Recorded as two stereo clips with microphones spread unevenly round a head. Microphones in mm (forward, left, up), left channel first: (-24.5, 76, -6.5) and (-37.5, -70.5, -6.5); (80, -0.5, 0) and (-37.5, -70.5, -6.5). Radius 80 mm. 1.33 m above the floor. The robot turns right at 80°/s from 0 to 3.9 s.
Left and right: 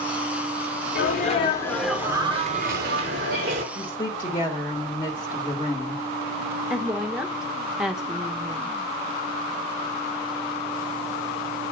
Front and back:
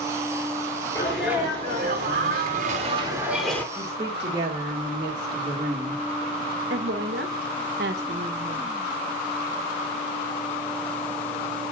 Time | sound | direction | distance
0.9 | a sneeze | 100° left | 4.5 m
3.8 | a woman speaking | 135° left | 2 m
6.7 | a woman speaking | straight behind | 1.2 m